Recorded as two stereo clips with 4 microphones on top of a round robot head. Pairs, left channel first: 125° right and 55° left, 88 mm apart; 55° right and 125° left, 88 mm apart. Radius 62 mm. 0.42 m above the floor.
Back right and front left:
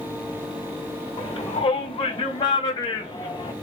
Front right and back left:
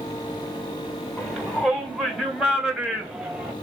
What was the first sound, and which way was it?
A shout, 145° right.